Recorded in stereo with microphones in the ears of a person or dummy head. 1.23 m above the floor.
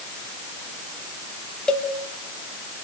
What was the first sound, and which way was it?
A cowbell, centre (ahead or behind).